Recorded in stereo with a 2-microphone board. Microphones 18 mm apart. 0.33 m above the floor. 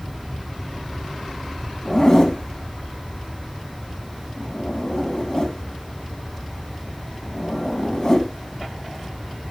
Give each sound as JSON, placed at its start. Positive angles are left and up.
{"t": 1.9, "sound": "a zipper", "side_deg": 40, "distance_m": 3.0}